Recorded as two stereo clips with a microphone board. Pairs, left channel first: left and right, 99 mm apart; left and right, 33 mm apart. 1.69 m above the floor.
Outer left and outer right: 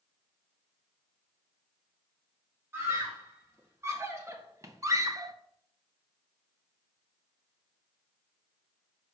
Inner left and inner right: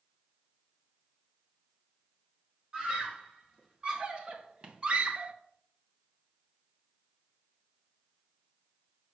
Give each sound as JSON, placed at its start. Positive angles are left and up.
{"t": 2.7, "sound": "a scream", "side_deg": -25, "distance_m": 2.5}